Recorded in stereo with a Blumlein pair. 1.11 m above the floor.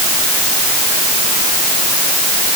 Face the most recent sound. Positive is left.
No sound to turn to.